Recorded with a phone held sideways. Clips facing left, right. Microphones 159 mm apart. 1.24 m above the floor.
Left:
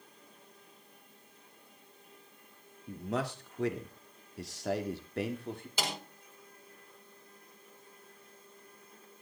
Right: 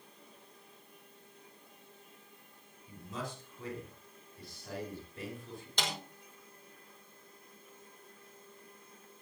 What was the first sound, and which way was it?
A man speaking, 65° left (ahead or behind).